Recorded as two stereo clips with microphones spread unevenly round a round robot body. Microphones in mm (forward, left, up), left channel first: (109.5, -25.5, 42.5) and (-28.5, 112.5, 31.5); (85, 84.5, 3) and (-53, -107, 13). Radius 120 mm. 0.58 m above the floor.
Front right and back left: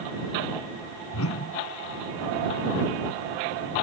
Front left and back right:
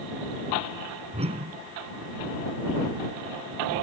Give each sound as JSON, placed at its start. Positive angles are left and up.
{"t": 1.1, "sound": "a whoosh", "azimuth_deg": -60}